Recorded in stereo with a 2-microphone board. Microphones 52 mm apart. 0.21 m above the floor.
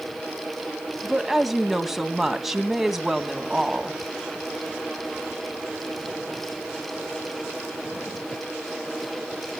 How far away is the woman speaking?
About 1.9 m.